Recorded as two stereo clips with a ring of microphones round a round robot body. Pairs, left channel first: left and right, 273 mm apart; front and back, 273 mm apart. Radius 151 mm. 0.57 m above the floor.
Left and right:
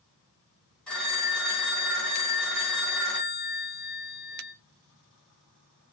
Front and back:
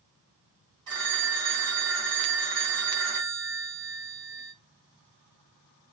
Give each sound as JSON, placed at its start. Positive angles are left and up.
{"t": 0.9, "sound": "a phone ringing", "azimuth_deg": 175, "distance_m": 1.6}